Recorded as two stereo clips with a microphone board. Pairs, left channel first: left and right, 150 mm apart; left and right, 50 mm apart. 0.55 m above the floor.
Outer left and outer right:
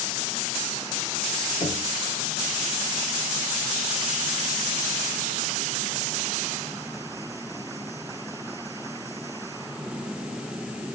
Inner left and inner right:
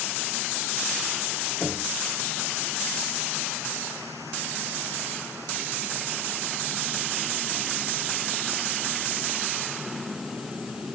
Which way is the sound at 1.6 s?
55° left (ahead or behind).